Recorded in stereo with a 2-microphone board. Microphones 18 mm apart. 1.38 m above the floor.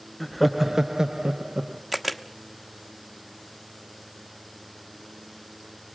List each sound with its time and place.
0.2 s laughter: 15° left (ahead or behind), 0.6 m; by 1.8 s 55° right (ahead or behind), 1.2 m
1.9 s a camera shutter: centre (ahead or behind), 0.9 m